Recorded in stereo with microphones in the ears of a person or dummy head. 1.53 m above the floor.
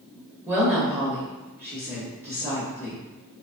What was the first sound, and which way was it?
A woman speaking, 15° right (ahead or behind).